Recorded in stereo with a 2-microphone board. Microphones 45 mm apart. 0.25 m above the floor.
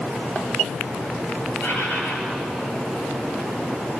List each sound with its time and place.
1.6 s a bird: 55° left (ahead or behind), 5 m